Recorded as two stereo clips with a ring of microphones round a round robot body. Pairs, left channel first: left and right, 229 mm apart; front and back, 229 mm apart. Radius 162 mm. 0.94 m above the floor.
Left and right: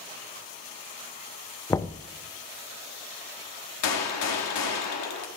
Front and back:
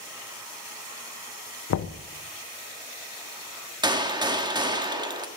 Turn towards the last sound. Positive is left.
turn(degrees=105)